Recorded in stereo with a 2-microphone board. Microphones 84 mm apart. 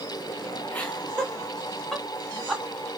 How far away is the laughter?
About 1.3 m.